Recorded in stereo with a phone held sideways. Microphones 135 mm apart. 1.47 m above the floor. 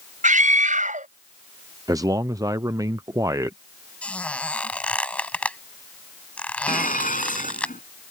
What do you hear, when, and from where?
0.2 s a scream: 70° right (ahead or behind)
1.9 s a man speaking: 25° right (ahead or behind)
4.0 s a squeak: 10° left (ahead or behind)
6.7 s dishes clattering: 85° left